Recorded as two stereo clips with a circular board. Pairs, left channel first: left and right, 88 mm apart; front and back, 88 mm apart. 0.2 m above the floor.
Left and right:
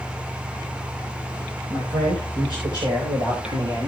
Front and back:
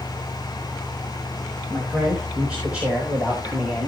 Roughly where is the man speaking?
Right.